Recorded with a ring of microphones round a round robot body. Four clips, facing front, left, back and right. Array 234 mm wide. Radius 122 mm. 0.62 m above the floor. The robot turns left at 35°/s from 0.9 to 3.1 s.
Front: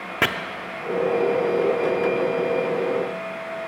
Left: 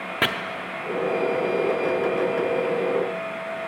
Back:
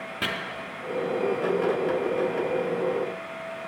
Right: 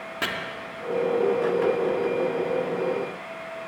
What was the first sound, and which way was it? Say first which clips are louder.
Chopping: left 6 dB, front 10 dB; 30° left.